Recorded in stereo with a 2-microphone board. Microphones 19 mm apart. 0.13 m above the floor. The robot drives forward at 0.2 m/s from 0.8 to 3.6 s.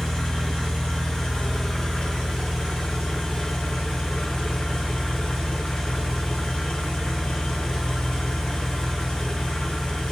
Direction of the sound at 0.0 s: 55° left (ahead or behind).